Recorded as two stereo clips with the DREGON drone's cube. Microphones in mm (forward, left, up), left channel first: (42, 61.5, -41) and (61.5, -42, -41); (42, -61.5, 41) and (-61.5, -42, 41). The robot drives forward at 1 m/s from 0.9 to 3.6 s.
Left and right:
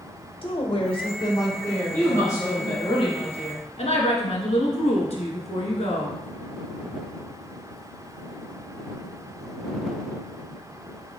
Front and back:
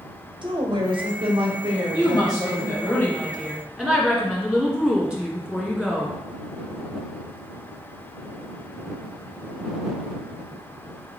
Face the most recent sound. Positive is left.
turn(degrees=85)